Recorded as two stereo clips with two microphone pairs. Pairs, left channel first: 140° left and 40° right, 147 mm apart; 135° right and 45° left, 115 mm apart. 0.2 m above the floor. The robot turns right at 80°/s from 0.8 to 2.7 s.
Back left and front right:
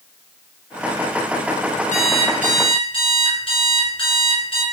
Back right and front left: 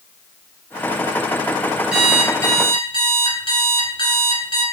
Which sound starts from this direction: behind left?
An alarm clock, at 1.9 s.